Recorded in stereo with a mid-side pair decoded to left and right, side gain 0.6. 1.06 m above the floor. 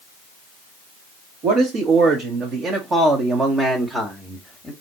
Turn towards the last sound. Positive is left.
turn(degrees=15)